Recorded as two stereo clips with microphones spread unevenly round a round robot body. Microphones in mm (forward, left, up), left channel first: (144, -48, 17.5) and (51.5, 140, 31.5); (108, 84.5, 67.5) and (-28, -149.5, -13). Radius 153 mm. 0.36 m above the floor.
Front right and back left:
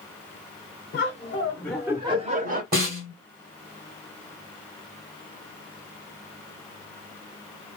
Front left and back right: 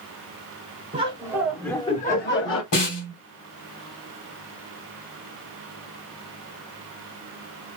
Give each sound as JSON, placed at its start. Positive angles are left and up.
{"t": 0.9, "sound": "laughter", "azimuth_deg": -85, "distance_m": 1.1}
{"t": 2.7, "sound": "a snare drum", "azimuth_deg": 80, "distance_m": 2.5}